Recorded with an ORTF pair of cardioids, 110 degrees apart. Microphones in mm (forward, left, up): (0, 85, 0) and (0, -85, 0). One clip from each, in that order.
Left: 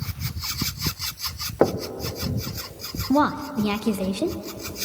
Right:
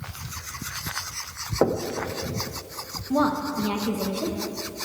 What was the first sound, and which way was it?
Knocking, 20° left.